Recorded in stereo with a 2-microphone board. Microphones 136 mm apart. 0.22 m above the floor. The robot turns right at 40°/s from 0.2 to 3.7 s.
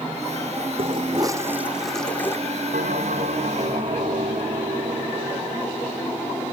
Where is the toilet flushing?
45° right; by 2.4 s 20° left.